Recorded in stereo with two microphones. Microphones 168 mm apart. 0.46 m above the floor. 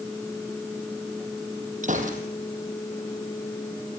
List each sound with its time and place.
1.8 s a gunshot: 50° right (ahead or behind), 3 m